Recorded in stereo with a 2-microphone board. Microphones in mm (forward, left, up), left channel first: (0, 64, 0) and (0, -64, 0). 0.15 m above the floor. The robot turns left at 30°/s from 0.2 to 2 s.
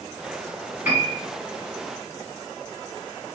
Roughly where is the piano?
Centre.